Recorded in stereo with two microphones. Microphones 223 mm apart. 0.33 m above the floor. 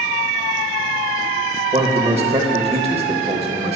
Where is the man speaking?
25° right (ahead or behind), 1.0 m.